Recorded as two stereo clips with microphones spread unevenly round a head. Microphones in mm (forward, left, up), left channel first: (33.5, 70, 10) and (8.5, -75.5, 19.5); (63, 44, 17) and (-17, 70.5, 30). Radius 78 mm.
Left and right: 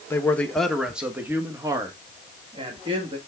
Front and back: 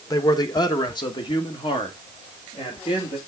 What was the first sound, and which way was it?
A man speaking, 10° left.